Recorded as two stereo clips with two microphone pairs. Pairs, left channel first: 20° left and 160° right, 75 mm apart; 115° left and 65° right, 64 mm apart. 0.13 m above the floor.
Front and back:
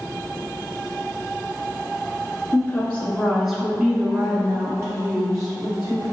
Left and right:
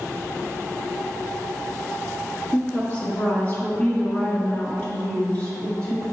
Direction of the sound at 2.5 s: 70° left.